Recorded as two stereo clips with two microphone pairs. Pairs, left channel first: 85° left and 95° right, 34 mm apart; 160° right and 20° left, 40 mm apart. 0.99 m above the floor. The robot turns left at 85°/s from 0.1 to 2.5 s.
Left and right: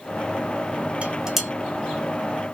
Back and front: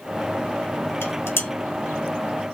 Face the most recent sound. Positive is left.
turn(degrees=90)